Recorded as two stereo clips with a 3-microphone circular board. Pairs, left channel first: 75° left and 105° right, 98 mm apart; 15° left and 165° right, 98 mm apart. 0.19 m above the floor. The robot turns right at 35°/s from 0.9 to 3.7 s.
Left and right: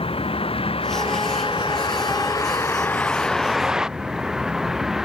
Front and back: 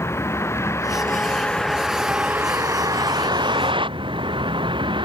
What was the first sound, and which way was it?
A vehicle, 75° left.